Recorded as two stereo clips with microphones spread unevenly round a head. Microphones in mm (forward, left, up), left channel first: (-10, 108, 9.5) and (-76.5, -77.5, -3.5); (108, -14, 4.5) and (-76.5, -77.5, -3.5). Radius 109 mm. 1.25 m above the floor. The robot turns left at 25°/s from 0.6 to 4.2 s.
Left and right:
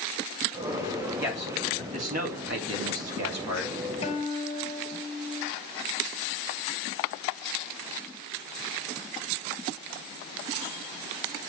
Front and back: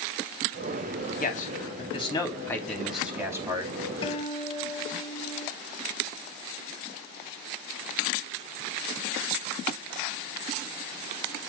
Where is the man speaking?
30° right, 3 m; by 3.8 s 95° right, 3 m.